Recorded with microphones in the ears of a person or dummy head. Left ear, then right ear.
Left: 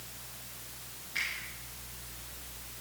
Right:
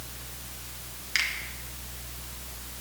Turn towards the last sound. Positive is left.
turn(degrees=-80)